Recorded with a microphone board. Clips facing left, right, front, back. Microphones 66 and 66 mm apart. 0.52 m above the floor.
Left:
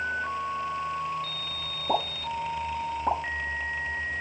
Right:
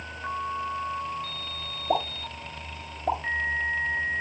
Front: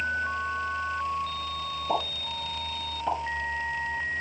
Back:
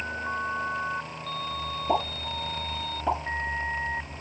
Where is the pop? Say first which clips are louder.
Even, back 3 dB; 110° left, 6.5 m.